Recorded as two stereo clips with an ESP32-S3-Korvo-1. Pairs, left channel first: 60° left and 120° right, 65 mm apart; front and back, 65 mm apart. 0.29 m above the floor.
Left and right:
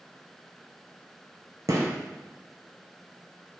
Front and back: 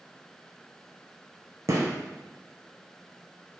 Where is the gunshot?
150° right, 0.8 m.